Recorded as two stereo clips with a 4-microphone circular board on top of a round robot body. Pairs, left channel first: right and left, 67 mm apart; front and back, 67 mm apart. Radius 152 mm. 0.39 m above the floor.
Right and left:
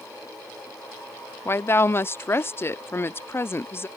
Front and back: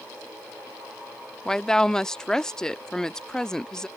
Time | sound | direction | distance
1.4 | a woman speaking | 75° right | ?